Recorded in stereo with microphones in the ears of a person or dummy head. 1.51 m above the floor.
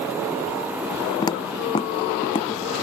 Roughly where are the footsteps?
Left.